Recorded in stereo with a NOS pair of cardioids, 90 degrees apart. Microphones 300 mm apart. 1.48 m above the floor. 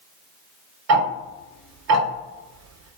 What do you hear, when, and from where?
0.9 s ticking: 60° right, 0.8 m